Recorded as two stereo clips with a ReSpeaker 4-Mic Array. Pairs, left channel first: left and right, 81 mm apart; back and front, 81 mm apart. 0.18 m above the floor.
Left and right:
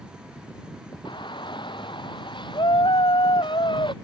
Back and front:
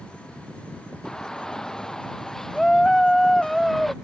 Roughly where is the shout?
Left.